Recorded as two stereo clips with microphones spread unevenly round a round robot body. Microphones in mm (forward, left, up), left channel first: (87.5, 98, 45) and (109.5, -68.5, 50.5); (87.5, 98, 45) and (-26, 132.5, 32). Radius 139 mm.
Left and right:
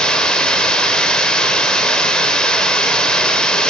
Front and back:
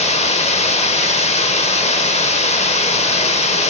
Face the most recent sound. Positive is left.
turn(degrees=15)